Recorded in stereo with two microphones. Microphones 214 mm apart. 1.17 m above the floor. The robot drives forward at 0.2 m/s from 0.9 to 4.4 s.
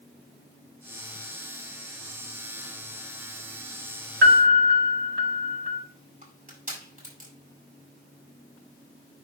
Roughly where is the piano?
Right.